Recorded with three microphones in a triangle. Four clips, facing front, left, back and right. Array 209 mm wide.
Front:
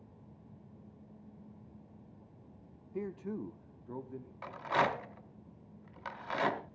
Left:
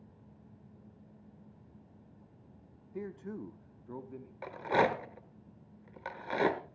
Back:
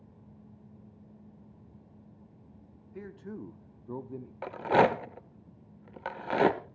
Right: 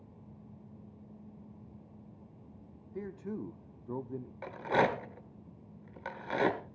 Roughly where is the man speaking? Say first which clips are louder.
Right 1 dB, front 3 dB; ahead.